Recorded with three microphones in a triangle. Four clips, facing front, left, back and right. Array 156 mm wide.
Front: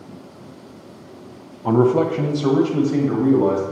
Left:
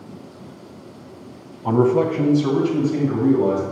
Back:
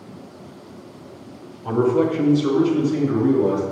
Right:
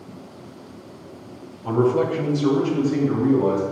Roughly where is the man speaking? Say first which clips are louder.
Left 2 dB, front 2 dB; ahead left.